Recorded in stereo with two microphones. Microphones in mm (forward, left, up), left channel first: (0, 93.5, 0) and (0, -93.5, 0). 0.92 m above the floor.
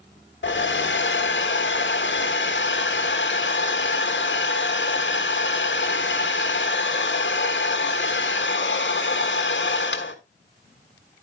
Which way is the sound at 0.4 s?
75° left (ahead or behind).